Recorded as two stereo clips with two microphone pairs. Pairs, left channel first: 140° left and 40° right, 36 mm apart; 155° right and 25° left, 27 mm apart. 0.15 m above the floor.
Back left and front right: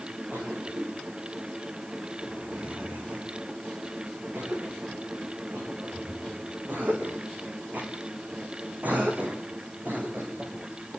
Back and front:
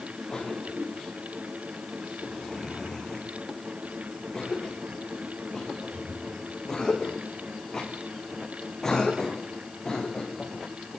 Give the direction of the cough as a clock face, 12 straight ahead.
3 o'clock.